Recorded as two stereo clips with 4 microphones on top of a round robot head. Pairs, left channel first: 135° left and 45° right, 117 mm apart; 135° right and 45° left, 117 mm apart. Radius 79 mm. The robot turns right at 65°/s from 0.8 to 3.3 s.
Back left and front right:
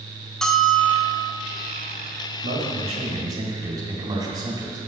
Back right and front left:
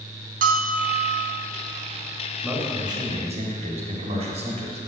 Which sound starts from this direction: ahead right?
A man speaking, at 2.4 s.